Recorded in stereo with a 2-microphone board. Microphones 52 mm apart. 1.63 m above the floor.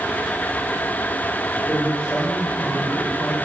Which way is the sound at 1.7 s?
30° left (ahead or behind).